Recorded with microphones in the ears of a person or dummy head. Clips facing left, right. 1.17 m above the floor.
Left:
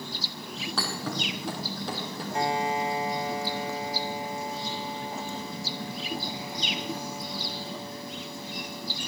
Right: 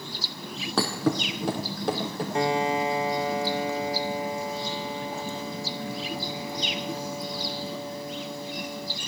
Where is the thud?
55° right (ahead or behind), 3 m.